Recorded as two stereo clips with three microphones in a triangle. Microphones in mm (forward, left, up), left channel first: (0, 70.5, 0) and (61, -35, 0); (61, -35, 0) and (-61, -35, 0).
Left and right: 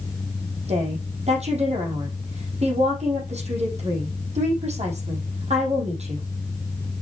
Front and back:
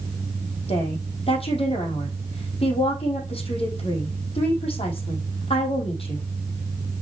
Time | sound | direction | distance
0.7 | a woman speaking | 35° right | 4.5 m